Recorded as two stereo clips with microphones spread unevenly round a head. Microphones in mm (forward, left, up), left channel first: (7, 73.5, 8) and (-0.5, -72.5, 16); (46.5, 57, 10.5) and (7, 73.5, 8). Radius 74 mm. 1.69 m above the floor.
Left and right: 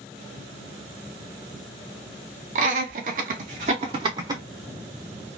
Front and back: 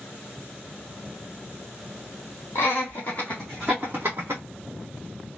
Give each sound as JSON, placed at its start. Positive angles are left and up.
{"t": 2.5, "sound": "laughter", "azimuth_deg": -65, "distance_m": 0.9}